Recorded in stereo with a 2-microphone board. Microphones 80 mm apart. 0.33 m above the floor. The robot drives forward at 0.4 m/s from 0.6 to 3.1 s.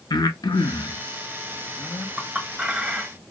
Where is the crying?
I don't hear crying.